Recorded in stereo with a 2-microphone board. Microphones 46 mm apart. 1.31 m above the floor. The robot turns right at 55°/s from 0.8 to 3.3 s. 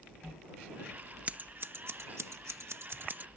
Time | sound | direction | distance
1.3 | scissors | 30° right (ahead or behind) | ?